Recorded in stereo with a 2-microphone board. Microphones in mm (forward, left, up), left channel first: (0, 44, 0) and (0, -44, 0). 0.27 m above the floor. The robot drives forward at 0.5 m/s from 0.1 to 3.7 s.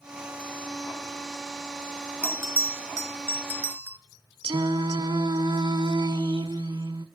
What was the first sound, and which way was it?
A bell, 35° right (ahead or behind).